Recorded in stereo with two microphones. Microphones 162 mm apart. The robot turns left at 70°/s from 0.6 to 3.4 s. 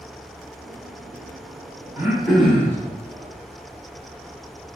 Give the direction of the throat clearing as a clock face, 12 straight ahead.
5 o'clock.